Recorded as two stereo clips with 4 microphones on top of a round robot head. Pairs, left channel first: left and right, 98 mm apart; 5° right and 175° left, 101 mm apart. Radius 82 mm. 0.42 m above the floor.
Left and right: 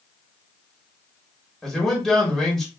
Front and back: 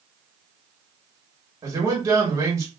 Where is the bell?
I don't hear a bell.